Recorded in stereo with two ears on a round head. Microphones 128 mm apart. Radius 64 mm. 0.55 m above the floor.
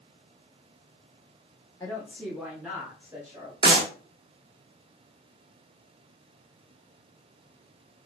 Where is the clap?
30° right (ahead or behind), 1.0 m.